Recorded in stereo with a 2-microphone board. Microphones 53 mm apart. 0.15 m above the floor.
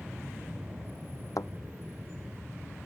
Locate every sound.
0.0 s an aircraft: 15° right (ahead or behind); by 2.9 s 20° right (ahead or behind)
1.4 s a thud: 80° left